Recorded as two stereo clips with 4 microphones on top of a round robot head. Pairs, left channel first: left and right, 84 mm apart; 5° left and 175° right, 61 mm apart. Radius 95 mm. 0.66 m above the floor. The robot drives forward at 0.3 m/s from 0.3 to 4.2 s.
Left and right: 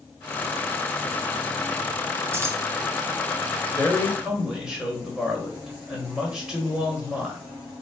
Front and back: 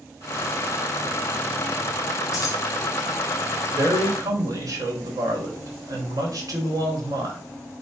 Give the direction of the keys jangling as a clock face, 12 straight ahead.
1 o'clock.